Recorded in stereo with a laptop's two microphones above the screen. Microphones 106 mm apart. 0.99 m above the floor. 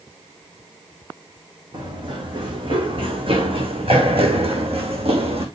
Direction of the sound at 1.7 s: 45° right (ahead or behind).